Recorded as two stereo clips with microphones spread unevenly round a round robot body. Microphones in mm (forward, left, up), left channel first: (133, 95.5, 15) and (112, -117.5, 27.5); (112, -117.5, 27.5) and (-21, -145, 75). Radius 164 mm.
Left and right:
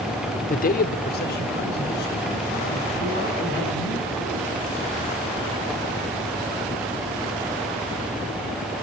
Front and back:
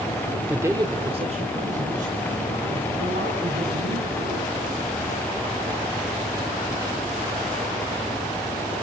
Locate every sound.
0.5 s a man speaking: 90° left, 1.0 m; by 4.5 s 145° left, 6 m